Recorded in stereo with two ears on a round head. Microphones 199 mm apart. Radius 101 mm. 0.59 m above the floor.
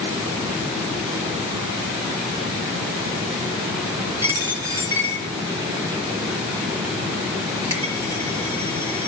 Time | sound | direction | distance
4.2 | a dropped coin | 10° right (ahead or behind) | 2 m